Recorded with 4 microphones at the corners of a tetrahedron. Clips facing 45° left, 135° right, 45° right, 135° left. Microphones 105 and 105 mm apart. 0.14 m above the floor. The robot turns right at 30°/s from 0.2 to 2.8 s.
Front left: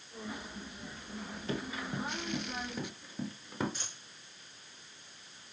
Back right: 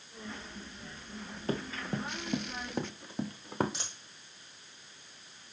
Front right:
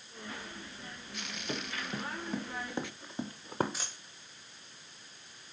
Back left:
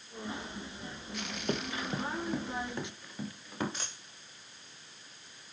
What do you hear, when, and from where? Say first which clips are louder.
1.5 s running footsteps: back right 3 dB, back left 4 dB; straight behind, 2.5 m; by 3.6 s 95° right, 2 m
3.7 s a dropped coin: back right 2 dB, even; 130° right, 3.5 m